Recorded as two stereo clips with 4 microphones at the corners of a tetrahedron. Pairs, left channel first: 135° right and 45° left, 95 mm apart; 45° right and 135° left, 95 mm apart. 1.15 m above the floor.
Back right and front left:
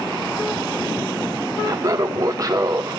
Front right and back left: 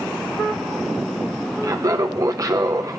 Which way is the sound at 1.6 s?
95° left.